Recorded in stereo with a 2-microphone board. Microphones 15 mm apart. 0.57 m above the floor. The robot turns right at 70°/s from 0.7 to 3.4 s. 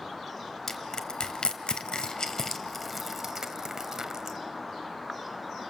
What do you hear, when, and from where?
0.7 s crushing: 30° left (ahead or behind), 1.9 m; by 4.4 s 35° right (ahead or behind), 1.9 m